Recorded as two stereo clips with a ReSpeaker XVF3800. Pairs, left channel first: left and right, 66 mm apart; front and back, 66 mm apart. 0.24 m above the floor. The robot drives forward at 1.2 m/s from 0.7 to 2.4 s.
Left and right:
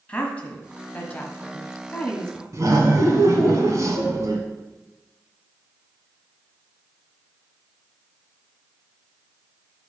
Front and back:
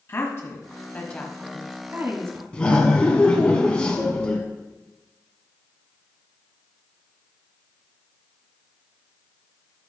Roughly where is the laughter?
Right.